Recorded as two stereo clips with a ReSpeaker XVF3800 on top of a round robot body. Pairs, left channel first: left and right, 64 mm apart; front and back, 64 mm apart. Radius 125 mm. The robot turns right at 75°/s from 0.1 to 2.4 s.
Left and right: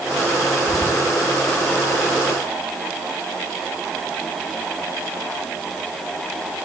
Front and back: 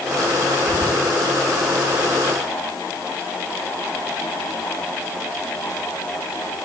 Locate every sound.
0.7 s whispering: 135° left, 2 m; by 1.1 s 165° left, 2 m